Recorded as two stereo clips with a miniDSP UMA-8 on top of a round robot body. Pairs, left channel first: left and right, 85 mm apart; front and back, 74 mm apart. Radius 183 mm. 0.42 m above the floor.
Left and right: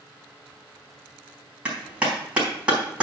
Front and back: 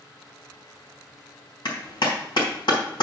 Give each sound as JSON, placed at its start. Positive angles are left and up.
{"t": 1.6, "sound": "a clap", "azimuth_deg": -10, "distance_m": 4.0}